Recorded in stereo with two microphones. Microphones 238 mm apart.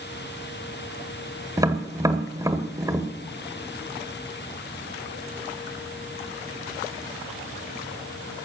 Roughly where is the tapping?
Centre.